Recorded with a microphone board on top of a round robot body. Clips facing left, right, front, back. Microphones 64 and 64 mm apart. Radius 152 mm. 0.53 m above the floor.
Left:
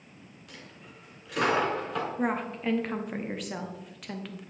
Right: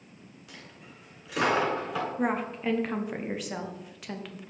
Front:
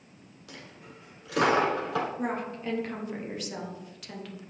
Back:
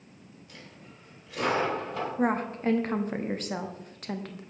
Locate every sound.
0.5 s a dropped coin: 5° right, 0.9 m
2.2 s a woman speaking: 175° right, 0.9 m